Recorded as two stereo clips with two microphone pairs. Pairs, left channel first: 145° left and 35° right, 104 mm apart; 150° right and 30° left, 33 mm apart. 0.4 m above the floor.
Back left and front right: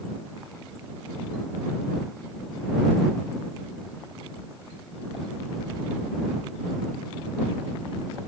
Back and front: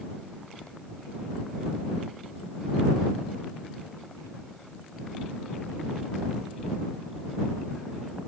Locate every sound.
Only background noise.